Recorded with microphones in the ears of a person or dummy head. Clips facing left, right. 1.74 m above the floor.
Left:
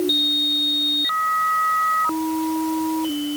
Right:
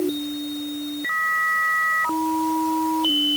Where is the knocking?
I don't hear knocking.